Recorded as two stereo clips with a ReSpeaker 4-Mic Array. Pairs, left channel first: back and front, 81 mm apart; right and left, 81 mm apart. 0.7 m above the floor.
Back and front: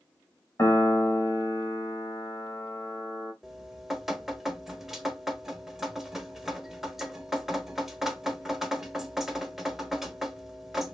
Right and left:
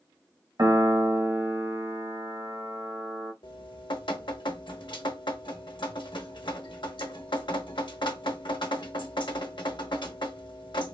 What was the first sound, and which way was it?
A piano, 135° left.